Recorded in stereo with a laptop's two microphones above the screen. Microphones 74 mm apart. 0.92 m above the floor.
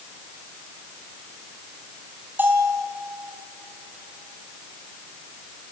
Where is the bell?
25° right (ahead or behind), 3.5 m.